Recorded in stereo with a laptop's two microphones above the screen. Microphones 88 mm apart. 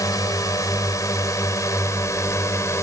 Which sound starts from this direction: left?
A drone, at 0.0 s.